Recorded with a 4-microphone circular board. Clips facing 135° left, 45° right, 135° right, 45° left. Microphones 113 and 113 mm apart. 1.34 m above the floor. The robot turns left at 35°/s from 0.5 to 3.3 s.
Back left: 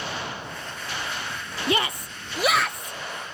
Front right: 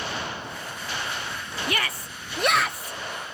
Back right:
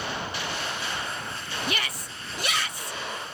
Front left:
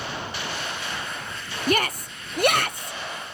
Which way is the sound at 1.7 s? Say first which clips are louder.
Back left 6 dB, front left 13 dB; 75° left.